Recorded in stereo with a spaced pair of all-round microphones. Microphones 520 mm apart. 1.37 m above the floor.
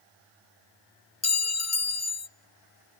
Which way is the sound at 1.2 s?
30° left (ahead or behind).